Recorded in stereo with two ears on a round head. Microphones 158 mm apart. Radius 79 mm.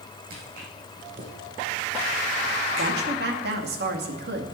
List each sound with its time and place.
0.3 s footsteps: 50° right (ahead or behind), 3.5 m; by 3.1 s 45° right (ahead or behind), 6.5 m
2.8 s a woman speaking: 60° right (ahead or behind), 2.5 m